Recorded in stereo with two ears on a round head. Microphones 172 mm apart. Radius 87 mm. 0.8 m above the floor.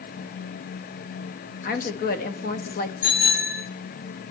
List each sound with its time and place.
1.6 s a woman speaking: 45° left (ahead or behind), 1.1 m
3.0 s a bicycle bell: 45° left (ahead or behind), 9 m